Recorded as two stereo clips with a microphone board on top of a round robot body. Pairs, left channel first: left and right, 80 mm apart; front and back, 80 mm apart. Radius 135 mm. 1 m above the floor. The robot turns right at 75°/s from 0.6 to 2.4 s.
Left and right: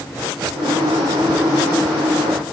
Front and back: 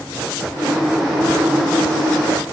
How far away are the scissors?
I don't hear scissors.